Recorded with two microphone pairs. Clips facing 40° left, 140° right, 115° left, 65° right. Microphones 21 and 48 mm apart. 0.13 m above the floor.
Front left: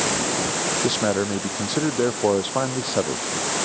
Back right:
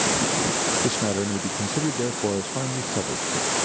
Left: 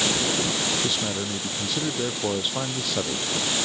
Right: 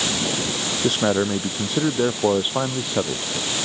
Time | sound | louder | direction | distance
0.8 | a man speaking | front left 3 dB, right 8 dB | 20° right | ?